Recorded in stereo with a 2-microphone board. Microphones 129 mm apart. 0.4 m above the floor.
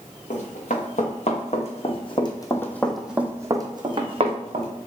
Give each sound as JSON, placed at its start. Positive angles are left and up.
{"t": 0.3, "sound": "running footsteps", "side_deg": 70, "distance_m": 1.6}